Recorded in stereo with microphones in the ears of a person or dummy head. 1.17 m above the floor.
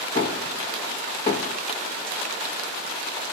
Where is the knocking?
30° left (ahead or behind), 1.3 m.